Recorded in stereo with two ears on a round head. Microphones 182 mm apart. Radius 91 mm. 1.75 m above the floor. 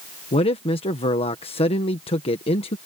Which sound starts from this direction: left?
A man speaking, at 0.3 s.